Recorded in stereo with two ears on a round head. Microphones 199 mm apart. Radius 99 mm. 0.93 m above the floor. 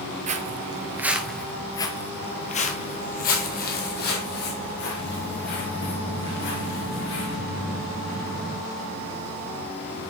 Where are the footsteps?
35° right (ahead or behind), 1.0 m; by 7.3 s 55° left (ahead or behind), 4 m.